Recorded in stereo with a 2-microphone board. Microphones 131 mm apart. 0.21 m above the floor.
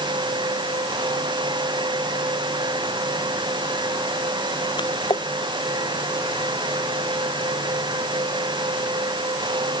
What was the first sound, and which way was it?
A splash, 35° left (ahead or behind).